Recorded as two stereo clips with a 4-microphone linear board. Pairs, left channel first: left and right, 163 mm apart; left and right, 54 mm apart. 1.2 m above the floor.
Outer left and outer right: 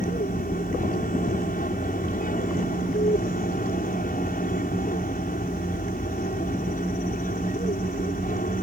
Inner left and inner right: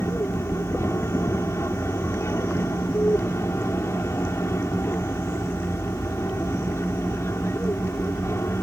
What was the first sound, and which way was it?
An aircraft, 55° left (ahead or behind).